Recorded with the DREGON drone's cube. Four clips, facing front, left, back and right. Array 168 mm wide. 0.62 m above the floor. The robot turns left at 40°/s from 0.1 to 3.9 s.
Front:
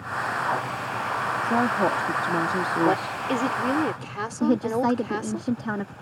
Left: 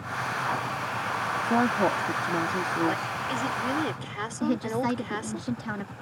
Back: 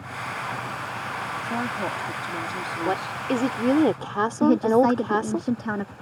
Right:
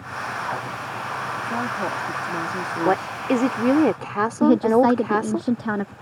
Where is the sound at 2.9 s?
85° right; by 5.4 s 125° right.